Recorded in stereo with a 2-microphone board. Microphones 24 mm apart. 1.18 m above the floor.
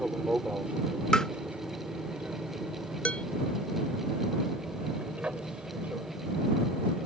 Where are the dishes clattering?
65° left (ahead or behind).